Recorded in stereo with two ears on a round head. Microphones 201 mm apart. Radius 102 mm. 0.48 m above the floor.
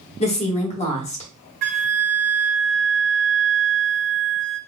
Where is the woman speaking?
30° left (ahead or behind), 1.1 m.